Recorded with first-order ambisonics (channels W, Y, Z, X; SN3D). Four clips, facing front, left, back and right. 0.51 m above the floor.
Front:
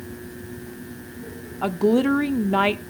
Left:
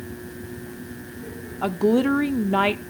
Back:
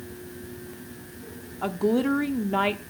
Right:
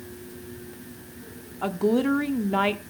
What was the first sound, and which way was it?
A woman speaking, 35° left.